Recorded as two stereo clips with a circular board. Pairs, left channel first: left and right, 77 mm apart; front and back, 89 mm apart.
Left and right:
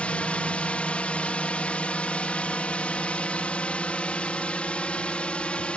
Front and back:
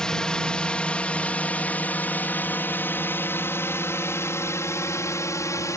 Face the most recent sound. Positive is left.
turn(degrees=25)